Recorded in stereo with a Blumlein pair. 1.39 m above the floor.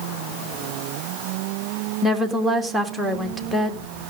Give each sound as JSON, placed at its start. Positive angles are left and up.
{"t": 2.0, "sound": "a woman speaking", "azimuth_deg": 0, "distance_m": 2.0}